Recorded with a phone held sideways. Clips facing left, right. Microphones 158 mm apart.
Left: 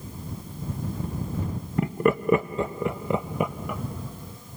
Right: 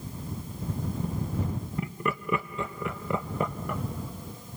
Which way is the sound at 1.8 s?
65° left (ahead or behind).